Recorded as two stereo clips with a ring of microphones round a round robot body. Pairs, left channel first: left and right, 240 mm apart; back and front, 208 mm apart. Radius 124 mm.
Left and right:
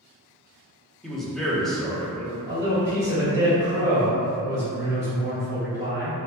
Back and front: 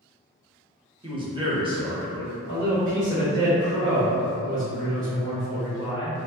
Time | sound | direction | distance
1.0 | a man speaking | 5° left | 0.8 m
2.5 | a man speaking | 15° right | 1.8 m